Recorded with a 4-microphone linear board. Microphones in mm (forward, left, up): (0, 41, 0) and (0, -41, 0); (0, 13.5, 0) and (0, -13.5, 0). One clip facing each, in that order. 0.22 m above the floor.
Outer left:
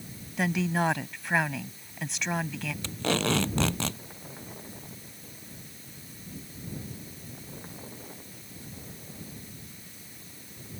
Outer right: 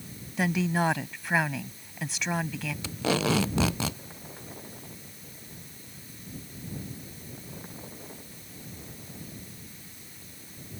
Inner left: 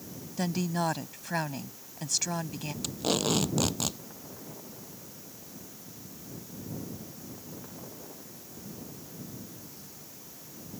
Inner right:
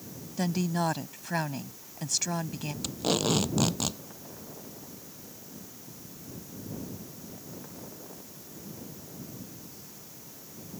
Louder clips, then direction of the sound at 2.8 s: Outer right 1 dB, inner right 1 dB; 5° right (ahead or behind).